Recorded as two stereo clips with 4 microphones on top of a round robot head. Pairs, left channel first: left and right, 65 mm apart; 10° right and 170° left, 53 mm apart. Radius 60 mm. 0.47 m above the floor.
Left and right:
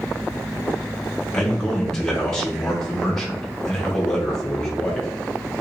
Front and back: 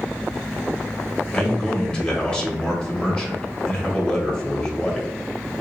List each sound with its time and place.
1.3 s a man speaking: 25° left, 1.2 m